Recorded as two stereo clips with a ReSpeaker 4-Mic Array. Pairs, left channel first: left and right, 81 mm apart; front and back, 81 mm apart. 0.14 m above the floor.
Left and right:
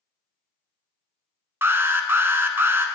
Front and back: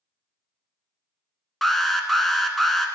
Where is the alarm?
90° right, 0.9 m.